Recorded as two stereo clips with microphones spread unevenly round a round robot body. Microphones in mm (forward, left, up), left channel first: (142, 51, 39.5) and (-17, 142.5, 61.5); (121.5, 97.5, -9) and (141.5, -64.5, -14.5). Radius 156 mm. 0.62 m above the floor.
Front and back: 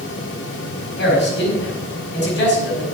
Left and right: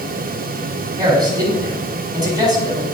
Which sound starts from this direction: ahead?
A man speaking, at 1.0 s.